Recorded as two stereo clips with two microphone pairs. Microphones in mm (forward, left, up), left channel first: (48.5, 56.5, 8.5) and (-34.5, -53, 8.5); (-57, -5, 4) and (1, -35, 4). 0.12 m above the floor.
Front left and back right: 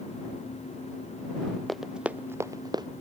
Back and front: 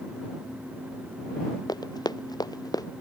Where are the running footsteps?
140° left; by 2.9 s 175° left.